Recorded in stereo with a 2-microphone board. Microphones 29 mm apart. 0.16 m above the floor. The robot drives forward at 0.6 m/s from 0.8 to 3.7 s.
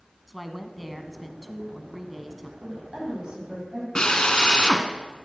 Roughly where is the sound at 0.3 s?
Centre.